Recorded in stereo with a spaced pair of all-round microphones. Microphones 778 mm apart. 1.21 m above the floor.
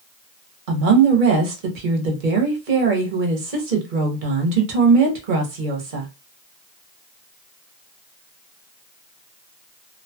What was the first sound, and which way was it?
A woman speaking, 90° right.